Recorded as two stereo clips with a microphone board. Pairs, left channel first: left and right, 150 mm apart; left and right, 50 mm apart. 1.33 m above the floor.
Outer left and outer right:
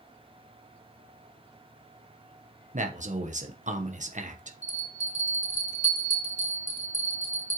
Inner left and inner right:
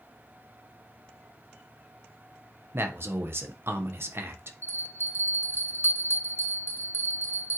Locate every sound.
2.7 s a man speaking: 55° right (ahead or behind), 1.2 m
4.6 s a bell: 60° left (ahead or behind), 2 m